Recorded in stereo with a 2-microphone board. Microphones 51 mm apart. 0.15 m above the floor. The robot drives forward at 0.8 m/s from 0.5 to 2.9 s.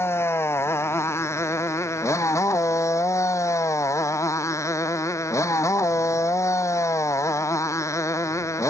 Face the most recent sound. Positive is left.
turn(degrees=80)